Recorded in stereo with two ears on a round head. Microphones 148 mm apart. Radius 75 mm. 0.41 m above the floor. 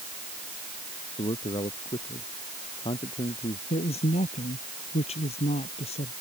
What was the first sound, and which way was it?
A man speaking, 30° left (ahead or behind).